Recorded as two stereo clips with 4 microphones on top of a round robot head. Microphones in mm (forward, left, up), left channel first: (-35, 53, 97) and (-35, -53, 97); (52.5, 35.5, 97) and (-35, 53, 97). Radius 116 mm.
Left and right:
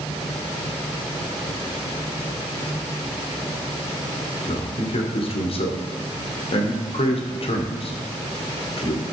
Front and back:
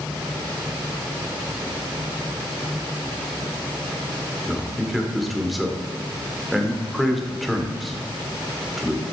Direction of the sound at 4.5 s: 80° left.